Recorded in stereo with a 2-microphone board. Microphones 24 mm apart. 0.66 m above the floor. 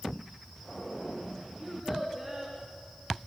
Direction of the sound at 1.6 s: 10° left (ahead or behind).